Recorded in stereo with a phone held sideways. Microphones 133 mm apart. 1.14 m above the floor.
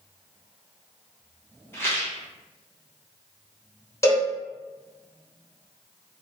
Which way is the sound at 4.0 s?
25° left (ahead or behind).